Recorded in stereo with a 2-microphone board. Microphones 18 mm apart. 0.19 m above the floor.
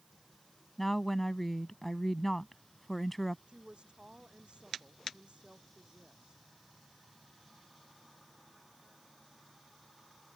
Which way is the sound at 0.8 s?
15° left (ahead or behind).